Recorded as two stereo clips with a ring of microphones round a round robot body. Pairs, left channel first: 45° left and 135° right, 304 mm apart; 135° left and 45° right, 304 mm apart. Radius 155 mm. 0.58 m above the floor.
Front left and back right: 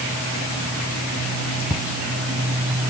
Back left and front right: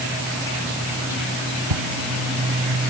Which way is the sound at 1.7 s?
50° right.